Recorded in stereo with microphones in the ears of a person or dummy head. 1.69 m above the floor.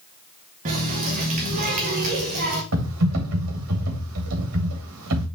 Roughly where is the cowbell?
I don't hear a cowbell.